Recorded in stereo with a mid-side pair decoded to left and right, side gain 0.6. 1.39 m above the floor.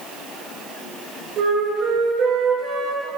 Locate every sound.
1.4 s a flute: 55° right, 5 m